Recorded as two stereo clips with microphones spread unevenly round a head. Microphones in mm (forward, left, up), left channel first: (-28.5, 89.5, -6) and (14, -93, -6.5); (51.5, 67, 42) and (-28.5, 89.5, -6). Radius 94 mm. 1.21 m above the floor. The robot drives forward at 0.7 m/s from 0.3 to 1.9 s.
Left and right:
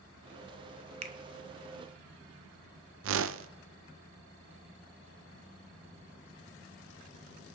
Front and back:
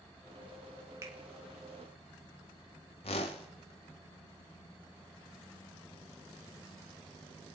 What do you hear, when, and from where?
1.0 s a finger snap: 135° right, 0.8 m; by 1.2 s 140° right, 0.9 m
3.0 s a whoosh: 50° right, 0.5 m